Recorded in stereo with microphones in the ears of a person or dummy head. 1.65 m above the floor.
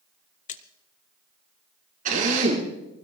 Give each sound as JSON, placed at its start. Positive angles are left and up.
{"t": 0.5, "sound": "a splash", "side_deg": 40, "distance_m": 0.7}
{"t": 2.0, "sound": "a drill", "side_deg": -50, "distance_m": 5.5}